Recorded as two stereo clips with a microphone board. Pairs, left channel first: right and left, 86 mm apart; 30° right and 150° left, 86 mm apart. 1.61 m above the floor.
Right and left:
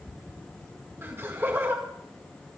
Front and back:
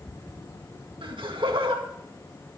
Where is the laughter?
150° left, 2 m.